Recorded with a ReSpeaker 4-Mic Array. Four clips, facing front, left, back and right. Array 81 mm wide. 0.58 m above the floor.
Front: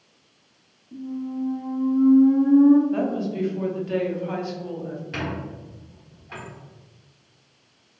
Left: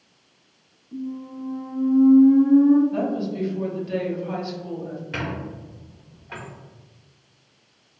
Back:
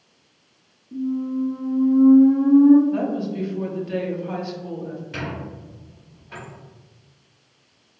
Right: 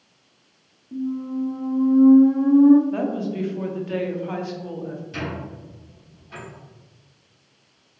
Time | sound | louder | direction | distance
0.9 | a squeak | right 6 dB, back 6 dB | 105° right | 1.7 m
2.9 | a woman speaking | even, even | 75° right | 0.6 m
5.1 | a squeak | left 1 dB, front 1 dB | 70° left | 1.2 m